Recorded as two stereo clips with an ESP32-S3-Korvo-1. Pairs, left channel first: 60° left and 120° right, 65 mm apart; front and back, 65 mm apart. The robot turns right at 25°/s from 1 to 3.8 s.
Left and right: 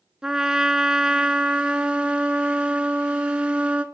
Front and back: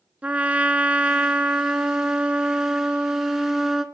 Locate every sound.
0.2 s a trumpet: straight behind, 0.9 m; by 3.8 s 110° right, 0.9 m